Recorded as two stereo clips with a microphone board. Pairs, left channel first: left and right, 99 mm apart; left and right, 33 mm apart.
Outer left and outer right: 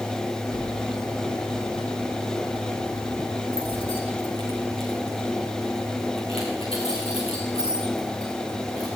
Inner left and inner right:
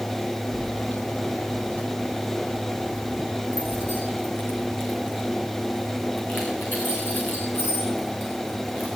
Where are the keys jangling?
60° left (ahead or behind), 2.0 m; by 8.9 s 70° left (ahead or behind), 8 m.